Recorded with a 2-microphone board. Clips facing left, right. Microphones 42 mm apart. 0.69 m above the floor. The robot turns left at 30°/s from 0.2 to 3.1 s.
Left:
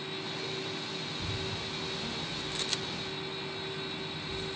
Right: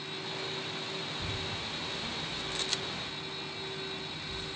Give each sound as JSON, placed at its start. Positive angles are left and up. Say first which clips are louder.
{"t": 1.1, "sound": "a child speaking", "louder": "even", "side_deg": -55, "distance_m": 1.7}